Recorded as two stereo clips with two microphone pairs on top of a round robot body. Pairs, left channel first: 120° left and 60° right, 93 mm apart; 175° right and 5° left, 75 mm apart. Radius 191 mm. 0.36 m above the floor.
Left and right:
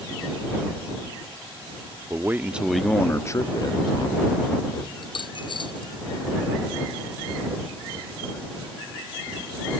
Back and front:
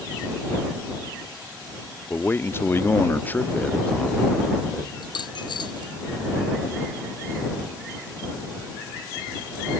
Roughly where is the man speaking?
Behind right.